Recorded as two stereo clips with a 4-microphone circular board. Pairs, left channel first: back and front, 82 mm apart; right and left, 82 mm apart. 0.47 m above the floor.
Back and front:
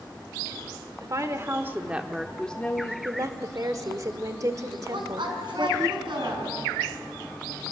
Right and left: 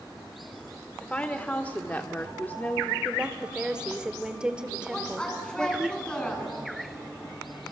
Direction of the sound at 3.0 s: 15° left.